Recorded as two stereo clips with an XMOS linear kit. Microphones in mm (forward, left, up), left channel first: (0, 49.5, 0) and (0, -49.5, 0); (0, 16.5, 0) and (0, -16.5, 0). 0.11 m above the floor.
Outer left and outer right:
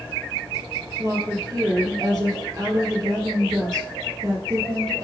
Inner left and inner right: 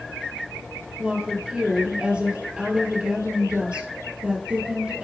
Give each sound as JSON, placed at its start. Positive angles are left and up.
{"t": 1.0, "sound": "a woman speaking", "side_deg": -30, "distance_m": 2.5}